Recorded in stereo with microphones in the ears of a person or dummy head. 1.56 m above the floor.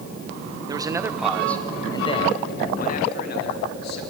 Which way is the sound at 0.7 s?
25° right (ahead or behind).